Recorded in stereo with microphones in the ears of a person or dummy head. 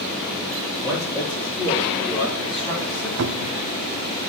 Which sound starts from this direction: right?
A cupboard door, at 3.2 s.